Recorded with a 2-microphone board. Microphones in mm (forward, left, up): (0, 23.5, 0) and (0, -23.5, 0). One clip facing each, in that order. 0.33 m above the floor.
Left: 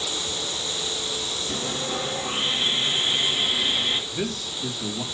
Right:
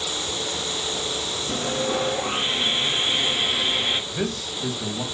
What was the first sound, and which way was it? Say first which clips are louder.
Sawing: right 6 dB; 40° right (ahead or behind).